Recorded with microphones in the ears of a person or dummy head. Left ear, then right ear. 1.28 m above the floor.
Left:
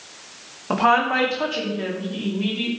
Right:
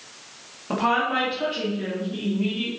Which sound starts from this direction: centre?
A woman speaking, at 0.7 s.